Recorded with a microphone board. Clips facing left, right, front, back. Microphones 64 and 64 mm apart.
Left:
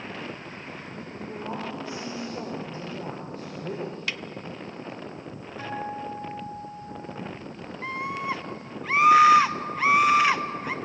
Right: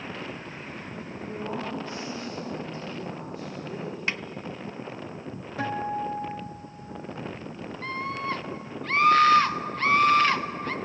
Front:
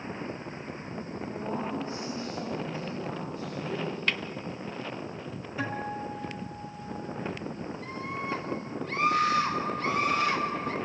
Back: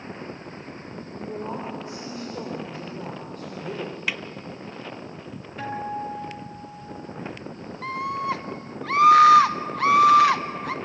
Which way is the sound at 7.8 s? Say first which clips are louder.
Left 1 dB, back 11 dB; 170° left.